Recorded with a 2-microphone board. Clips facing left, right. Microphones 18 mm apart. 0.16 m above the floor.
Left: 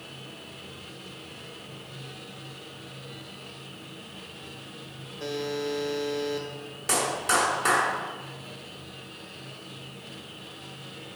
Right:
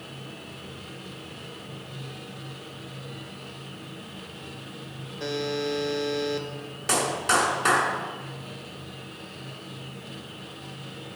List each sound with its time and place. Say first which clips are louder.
5.2 s a buzzer: right 2 dB; 25° right (ahead or behind), 0.6 m
6.9 s a clap: right 2 dB; 15° right (ahead or behind), 1.1 m